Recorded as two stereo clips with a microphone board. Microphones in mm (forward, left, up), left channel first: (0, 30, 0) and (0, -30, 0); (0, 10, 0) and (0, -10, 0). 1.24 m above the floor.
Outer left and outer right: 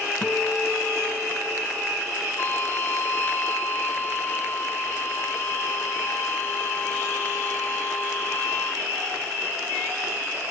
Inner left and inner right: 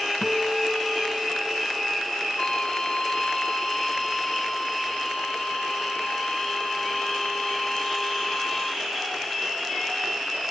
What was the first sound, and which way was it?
A guitar, 15° left (ahead or behind).